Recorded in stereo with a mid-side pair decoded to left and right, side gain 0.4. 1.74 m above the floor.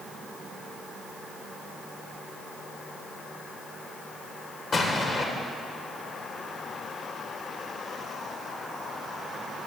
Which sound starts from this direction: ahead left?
An explosion, at 4.7 s.